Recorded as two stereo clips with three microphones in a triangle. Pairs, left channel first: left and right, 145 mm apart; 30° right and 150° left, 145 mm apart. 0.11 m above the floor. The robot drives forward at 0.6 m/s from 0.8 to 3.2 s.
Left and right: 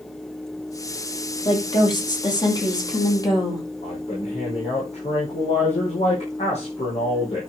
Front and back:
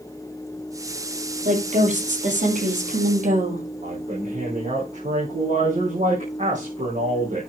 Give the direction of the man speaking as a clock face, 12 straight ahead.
8 o'clock.